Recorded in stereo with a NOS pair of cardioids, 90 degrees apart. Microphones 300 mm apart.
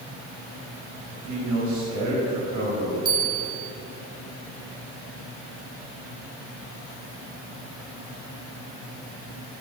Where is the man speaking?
65° right, 4 m.